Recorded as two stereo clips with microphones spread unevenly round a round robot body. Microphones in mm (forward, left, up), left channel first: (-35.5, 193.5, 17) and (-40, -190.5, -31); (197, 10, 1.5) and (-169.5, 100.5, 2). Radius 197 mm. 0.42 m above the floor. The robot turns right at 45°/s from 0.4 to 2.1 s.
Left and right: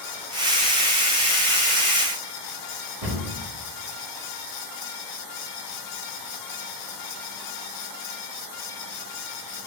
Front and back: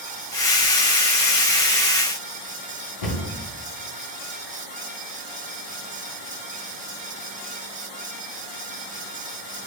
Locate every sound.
3.0 s a cupboard door: 50° right, 4 m